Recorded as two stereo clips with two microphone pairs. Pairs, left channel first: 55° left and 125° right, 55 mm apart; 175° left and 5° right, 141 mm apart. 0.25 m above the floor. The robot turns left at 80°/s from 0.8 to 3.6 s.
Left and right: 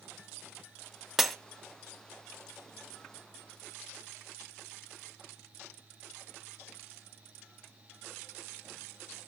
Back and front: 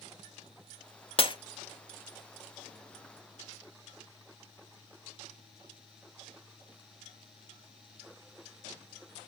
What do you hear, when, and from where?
1.2 s breaking glass: 155° left, 0.8 m; by 1.4 s 145° left, 0.8 m